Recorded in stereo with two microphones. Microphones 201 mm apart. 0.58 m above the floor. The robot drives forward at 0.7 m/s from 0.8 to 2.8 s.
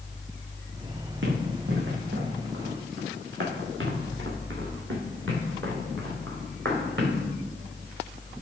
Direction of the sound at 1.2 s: 75° right (ahead or behind).